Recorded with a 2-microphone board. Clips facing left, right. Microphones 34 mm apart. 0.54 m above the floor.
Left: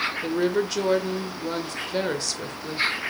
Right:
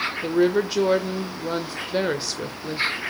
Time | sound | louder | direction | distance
0.2 | a woman speaking | right 5 dB | 10° right (ahead or behind) | 1.5 m